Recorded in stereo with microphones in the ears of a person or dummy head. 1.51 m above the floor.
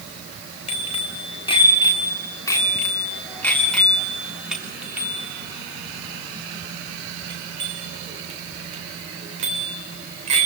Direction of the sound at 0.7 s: 40° left (ahead or behind).